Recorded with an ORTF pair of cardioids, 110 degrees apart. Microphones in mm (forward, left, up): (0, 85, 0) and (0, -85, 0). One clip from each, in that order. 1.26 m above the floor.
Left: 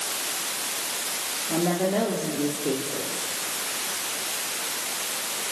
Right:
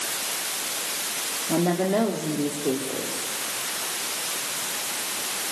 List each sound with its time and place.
1.5 s a woman speaking: 30° right, 3.5 m